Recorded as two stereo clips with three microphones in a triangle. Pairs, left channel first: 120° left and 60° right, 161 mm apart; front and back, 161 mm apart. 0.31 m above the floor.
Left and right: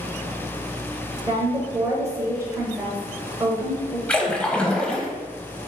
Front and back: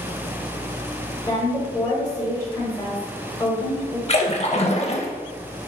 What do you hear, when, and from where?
1.3 s a woman speaking: 20° right, 1.2 m
4.1 s a splash: 40° left, 0.5 m